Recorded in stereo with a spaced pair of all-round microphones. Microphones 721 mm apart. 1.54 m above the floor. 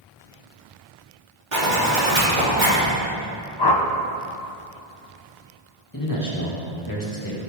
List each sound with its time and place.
1.5 s a zipper: 85° right, 3 m
3.6 s a whoosh: 35° left (ahead or behind), 0.8 m
5.9 s a man speaking: 25° left (ahead or behind), 2.5 m